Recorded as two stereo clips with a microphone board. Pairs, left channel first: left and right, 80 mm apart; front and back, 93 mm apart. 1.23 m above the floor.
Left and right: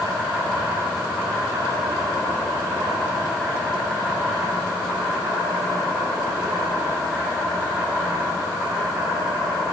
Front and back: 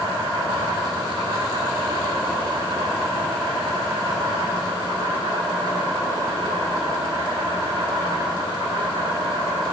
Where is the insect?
155° right, 2.5 m.